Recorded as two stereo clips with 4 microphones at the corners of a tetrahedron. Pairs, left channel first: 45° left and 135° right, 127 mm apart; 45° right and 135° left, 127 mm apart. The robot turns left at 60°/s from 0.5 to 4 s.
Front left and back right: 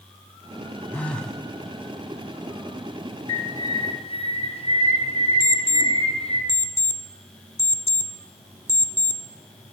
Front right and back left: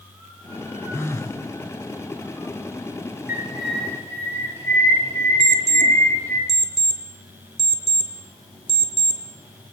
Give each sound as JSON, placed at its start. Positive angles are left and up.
{"t": 0.9, "sound": "a phone buzzing", "azimuth_deg": -15, "distance_m": 0.9}
{"t": 3.3, "sound": "a bird", "azimuth_deg": 65, "distance_m": 2.5}
{"t": 5.4, "sound": "an alarm clock", "azimuth_deg": 115, "distance_m": 1.0}